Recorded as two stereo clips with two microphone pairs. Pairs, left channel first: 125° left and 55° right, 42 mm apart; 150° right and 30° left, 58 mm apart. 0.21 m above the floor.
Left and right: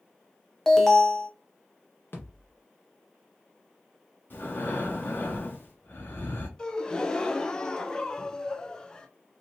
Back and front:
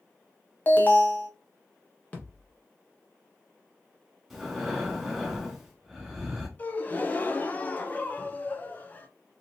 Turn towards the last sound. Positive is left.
turn(degrees=-175)